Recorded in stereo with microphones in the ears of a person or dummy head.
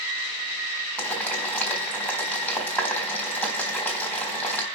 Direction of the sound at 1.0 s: 5° left (ahead or behind).